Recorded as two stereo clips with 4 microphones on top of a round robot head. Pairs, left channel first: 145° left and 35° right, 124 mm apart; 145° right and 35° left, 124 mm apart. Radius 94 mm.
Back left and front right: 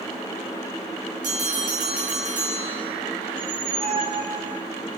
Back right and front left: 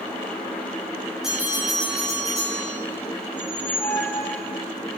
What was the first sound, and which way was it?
A bell, 50° right.